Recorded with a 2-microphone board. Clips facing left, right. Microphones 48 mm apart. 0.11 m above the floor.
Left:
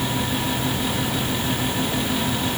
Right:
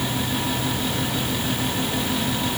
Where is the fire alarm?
I don't hear a fire alarm.